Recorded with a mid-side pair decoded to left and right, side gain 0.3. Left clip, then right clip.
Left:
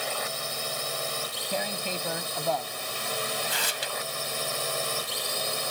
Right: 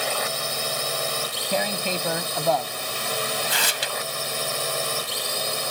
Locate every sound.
0.0 s a drone: 55° right; by 5.7 s 35° right
1.5 s tearing paper: 60° right